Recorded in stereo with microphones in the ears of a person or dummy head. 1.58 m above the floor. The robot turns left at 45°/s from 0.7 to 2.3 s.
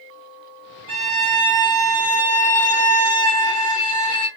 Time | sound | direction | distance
0.9 | a violin | 130° right | 1.6 m